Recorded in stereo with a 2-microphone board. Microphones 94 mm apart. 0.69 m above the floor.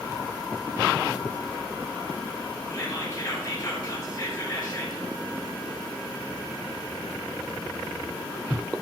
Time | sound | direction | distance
2.7 | whispering | 45° left (ahead or behind) | 4.5 m